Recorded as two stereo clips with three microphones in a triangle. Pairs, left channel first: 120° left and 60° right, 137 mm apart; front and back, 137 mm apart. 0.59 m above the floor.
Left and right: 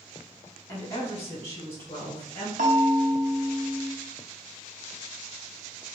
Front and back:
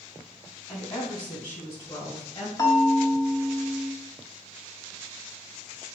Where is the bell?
65° right, 0.9 m.